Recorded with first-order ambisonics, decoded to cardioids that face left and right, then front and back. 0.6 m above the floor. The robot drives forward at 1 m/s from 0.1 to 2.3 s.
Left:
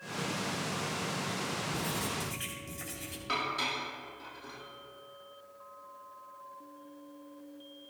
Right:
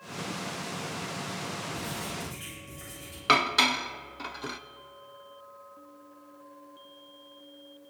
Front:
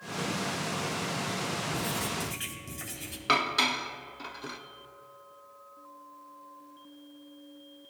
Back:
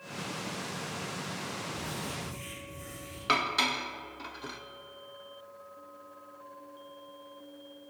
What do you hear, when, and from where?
1.7 s writing: 20° left, 3.5 m; by 3.2 s 25° left, 3 m
3.3 s dishes clattering: 85° right, 0.5 m